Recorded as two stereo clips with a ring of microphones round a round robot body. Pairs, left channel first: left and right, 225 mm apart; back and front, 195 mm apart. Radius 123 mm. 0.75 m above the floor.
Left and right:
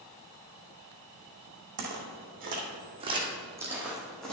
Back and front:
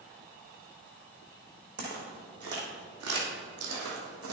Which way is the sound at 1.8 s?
50° right.